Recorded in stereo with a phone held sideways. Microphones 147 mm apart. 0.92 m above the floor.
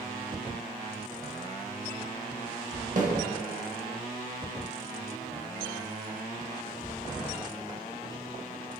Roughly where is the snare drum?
Right.